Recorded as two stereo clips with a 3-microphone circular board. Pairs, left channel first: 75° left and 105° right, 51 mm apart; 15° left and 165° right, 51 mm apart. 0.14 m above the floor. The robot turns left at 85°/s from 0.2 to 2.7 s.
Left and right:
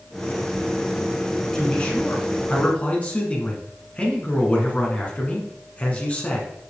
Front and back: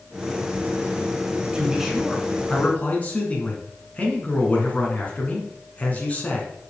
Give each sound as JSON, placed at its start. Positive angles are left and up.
{"t": 1.5, "sound": "a man speaking", "azimuth_deg": 140, "distance_m": 1.8}